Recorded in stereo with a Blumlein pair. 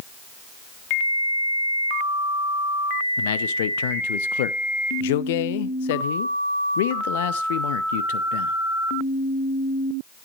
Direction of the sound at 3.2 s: 55° left.